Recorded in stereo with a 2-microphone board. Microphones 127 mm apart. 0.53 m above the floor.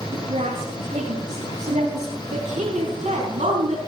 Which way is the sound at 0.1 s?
70° right (ahead or behind).